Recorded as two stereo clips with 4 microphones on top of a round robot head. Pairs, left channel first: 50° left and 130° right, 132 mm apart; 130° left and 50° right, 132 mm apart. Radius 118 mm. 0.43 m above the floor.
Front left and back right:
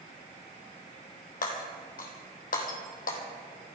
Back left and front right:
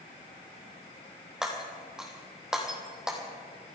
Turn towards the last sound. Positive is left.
turn(degrees=35)